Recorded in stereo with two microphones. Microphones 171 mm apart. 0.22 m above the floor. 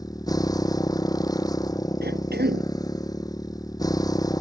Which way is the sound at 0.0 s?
20° left (ahead or behind).